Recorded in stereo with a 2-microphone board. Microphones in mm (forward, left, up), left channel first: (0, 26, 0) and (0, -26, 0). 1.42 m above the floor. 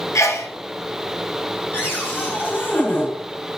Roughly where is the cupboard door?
Left.